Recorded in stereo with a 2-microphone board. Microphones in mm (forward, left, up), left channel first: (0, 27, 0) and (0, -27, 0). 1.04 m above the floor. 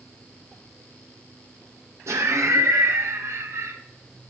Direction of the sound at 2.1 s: 60° right (ahead or behind).